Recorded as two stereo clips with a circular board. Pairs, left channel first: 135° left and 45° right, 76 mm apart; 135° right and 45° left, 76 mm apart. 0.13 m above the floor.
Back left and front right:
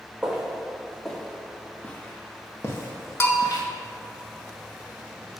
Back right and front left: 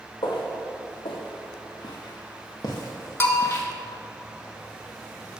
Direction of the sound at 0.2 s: 125° right.